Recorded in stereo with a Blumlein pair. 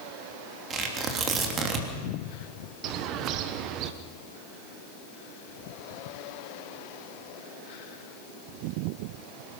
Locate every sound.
0.7 s tearing paper: 25° right, 3.5 m
2.8 s a bird: 40° right, 1.3 m